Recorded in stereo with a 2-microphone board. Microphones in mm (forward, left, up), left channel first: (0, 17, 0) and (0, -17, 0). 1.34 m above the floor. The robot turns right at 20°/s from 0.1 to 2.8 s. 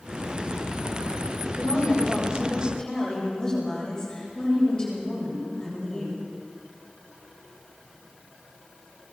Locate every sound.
1.6 s a woman speaking: 50° left (ahead or behind), 7.5 m; by 6.2 s 25° left (ahead or behind), 7.5 m